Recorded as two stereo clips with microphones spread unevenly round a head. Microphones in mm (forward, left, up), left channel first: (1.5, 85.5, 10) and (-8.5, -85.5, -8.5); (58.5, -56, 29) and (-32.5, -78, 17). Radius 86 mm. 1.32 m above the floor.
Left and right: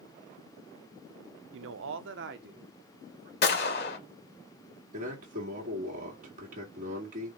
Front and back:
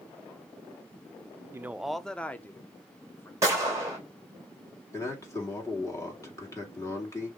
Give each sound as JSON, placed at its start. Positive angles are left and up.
{"t": 1.5, "sound": "a man speaking", "azimuth_deg": -105, "distance_m": 0.5}
{"t": 3.4, "sound": "a gunshot", "azimuth_deg": 115, "distance_m": 2.0}
{"t": 4.9, "sound": "a man speaking", "azimuth_deg": -45, "distance_m": 2.5}